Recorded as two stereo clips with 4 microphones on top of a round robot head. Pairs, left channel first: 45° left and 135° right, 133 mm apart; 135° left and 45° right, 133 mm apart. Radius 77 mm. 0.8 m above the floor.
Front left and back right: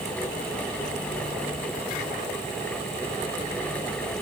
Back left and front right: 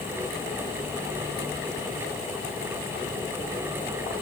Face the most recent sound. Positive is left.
No sound to turn to.